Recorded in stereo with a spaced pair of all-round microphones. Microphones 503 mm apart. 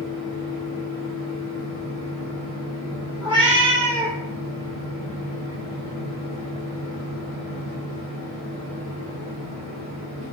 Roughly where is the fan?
Left.